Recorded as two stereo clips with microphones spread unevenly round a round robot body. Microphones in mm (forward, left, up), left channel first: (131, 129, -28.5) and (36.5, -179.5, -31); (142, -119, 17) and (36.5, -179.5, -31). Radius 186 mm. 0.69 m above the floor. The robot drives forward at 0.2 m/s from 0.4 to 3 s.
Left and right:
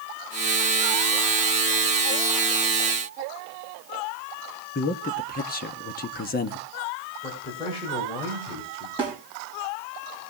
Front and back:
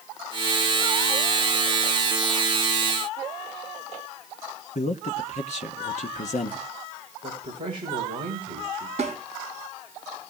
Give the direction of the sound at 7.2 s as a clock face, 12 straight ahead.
7 o'clock.